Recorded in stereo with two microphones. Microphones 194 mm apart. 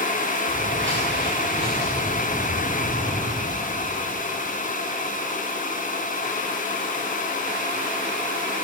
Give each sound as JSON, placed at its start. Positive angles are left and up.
{"t": 0.5, "sound": "footsteps", "side_deg": -75, "distance_m": 5.5}